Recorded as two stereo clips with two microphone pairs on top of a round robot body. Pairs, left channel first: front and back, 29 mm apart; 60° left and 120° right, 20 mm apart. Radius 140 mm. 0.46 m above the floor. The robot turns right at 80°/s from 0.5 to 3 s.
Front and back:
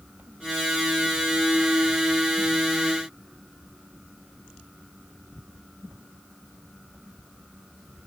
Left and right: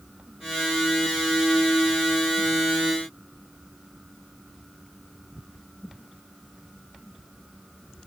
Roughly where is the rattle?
No rattle in this recording.